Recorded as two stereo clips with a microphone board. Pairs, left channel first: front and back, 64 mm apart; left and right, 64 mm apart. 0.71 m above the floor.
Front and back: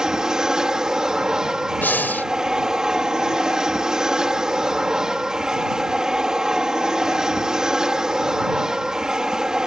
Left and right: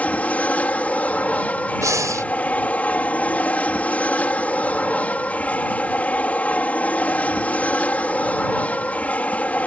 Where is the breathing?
60° right.